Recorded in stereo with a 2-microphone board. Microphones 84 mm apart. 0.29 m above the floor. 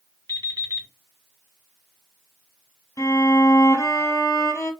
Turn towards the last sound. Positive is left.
turn(degrees=35)  # may be behind; listen again after turning